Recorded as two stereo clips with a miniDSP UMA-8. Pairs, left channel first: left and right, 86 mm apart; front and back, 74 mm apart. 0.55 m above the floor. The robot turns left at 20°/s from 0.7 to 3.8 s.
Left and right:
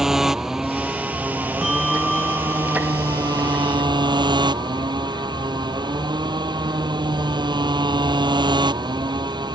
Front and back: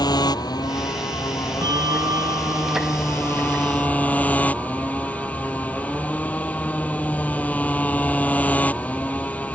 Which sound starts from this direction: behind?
A bell, at 1.6 s.